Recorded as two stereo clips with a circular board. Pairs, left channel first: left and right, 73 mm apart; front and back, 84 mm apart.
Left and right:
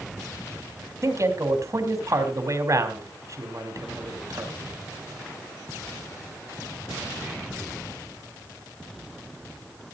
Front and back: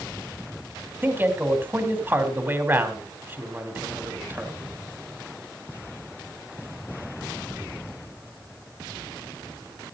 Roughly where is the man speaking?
Behind right.